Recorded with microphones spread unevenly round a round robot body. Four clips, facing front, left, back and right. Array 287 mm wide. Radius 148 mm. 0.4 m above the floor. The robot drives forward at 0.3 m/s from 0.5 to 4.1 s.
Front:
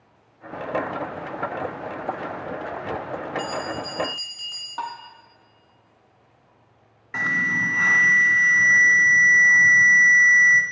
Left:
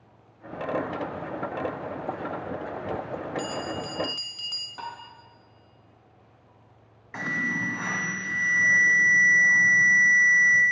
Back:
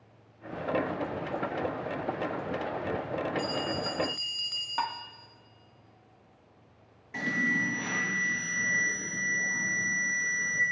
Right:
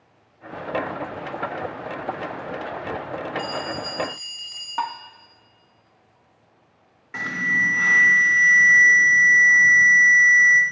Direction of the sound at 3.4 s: 115° left.